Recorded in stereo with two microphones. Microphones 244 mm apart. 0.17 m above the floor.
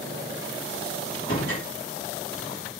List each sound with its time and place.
1.1 s a door slam: 55° left (ahead or behind), 4 m